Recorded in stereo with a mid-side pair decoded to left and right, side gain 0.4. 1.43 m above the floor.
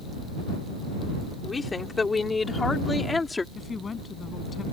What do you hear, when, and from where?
1.4 s a woman speaking: 30° left; by 3.5 s 25° left
3.5 s a woman speaking: 45° left